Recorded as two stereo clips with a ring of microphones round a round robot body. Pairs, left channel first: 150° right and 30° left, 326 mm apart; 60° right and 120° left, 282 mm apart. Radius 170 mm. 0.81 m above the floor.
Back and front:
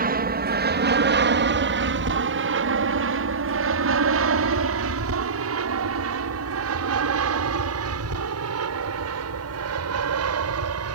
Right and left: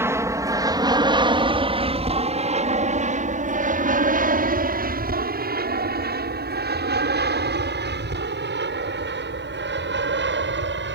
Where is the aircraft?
50° left; by 11.0 s 75° left.